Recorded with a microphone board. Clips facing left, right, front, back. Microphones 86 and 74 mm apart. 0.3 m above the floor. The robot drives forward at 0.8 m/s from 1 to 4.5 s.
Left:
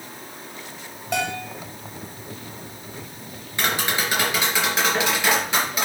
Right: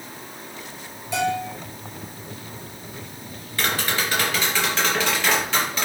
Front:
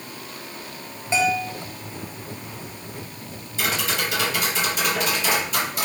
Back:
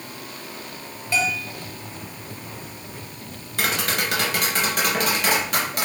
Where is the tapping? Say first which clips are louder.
Left 1 dB, back 1 dB; 160° left, 3 m; by 5.8 s 165° left, 3.5 m.